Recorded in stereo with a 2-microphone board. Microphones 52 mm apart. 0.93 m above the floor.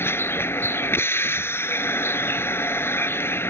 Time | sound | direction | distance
0.0 | a vehicle | 45° left (ahead or behind) | ?